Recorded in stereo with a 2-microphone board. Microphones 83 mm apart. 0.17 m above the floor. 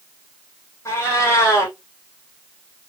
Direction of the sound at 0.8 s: 35° left (ahead or behind).